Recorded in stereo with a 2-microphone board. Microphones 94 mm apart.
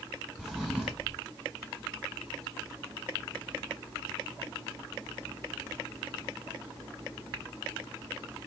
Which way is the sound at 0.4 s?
5° right (ahead or behind).